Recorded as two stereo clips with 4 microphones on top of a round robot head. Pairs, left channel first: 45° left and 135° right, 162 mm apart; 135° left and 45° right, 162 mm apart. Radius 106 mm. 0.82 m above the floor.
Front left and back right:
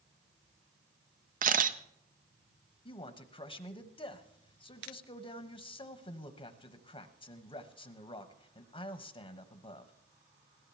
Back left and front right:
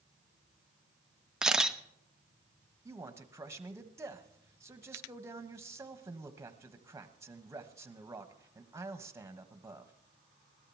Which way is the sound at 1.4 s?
130° right.